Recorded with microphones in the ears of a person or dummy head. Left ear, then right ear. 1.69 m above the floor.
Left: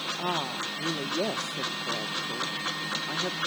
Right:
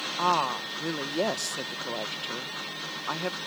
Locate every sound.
0.2 s a woman speaking: 40° right (ahead or behind)